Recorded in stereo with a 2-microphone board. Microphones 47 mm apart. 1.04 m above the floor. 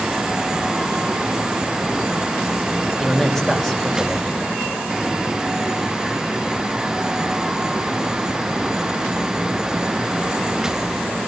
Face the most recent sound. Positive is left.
turn(degrees=10)  # may be behind; listen again after turning